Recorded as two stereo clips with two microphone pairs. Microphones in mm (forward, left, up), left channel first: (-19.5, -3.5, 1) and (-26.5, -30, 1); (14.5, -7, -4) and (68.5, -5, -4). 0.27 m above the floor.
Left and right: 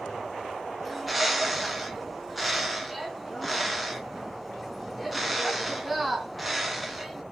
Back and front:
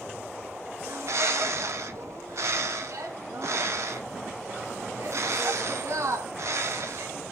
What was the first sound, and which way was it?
A bird, 20° right.